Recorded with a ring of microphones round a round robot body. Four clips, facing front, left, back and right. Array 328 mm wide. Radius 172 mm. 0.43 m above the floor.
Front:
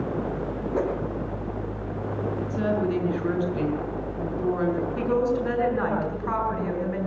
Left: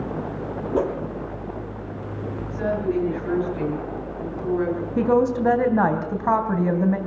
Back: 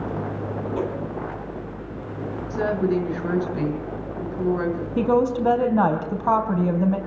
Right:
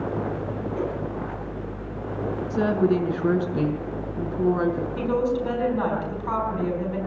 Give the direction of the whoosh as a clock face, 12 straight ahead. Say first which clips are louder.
Left 7 dB, front 2 dB; 9 o'clock.